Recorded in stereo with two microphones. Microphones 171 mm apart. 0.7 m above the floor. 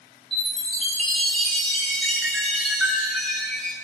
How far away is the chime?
About 3.5 m.